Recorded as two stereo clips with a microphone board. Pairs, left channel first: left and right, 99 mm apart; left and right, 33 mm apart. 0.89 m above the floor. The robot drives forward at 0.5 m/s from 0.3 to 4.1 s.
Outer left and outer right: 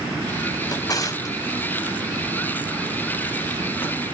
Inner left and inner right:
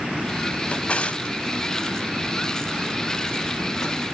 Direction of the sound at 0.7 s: 40° left (ahead or behind).